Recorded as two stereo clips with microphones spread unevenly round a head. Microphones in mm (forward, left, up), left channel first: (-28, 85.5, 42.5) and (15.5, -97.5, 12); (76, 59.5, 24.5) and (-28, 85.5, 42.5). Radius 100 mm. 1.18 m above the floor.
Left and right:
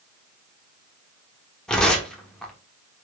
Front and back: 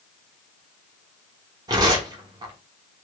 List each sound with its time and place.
1.7 s tearing paper: 175° left, 0.9 m